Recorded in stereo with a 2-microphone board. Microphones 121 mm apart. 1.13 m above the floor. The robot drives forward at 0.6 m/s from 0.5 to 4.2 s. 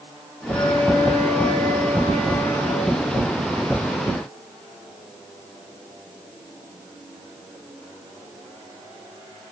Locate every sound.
0.5 s a flute: 30° left (ahead or behind), 4.5 m; by 3.0 s 25° left (ahead or behind), 5.5 m